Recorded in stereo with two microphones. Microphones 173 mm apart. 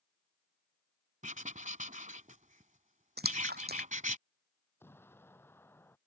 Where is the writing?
50° right (ahead or behind).